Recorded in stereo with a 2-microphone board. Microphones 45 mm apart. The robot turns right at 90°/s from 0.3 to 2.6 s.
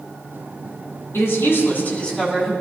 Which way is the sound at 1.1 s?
75° left.